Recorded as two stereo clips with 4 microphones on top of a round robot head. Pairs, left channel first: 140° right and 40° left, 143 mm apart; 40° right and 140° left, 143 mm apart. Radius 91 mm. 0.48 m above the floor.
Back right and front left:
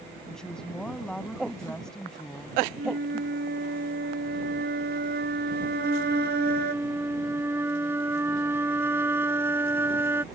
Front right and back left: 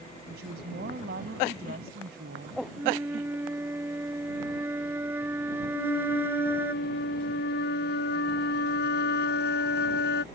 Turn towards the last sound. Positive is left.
turn(degrees=-35)